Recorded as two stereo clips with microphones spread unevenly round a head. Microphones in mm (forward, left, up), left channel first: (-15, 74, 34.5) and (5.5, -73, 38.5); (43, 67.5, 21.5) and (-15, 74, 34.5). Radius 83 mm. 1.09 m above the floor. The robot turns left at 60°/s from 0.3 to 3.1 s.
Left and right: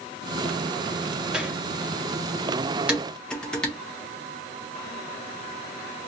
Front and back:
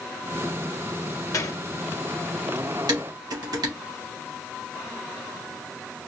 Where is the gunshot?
Straight ahead, 0.6 m; by 1.6 s 20° right, 0.6 m.